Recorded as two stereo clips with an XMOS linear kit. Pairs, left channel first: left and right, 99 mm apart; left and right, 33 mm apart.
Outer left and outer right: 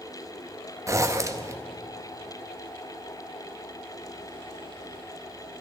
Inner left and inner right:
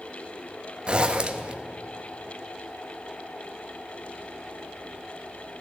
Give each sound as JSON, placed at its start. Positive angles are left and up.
{"t": 0.9, "sound": "a zipper", "side_deg": -30, "distance_m": 0.7}